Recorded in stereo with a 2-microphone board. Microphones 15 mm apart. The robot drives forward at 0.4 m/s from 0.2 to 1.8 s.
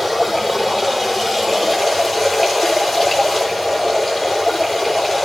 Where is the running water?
15° left (ahead or behind), 7 m.